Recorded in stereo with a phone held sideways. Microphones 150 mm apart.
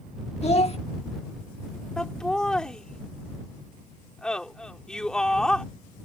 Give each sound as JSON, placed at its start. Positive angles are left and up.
{"t": 0.4, "sound": "a child speaking", "side_deg": 45}
{"t": 2.0, "sound": "laughter", "side_deg": 5}